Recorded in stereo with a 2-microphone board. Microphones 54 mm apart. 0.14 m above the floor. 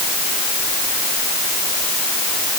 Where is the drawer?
No drawer in this recording.